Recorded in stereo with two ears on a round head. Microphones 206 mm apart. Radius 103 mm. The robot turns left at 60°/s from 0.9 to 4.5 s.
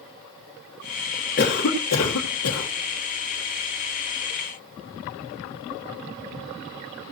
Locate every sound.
1.4 s a cough: 140° left, 1.6 m; by 2.7 s 60° left, 1.6 m